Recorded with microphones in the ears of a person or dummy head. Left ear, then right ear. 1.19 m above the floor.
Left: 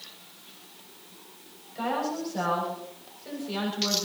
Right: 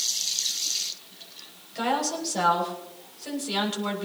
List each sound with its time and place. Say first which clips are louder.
1.8 s a woman speaking: right 3 dB; 30° right (ahead or behind), 7 m